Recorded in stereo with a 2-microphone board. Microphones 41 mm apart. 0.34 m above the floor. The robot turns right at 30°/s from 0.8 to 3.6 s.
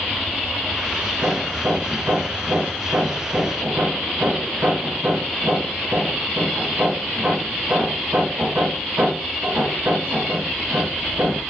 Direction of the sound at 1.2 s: 50° right (ahead or behind).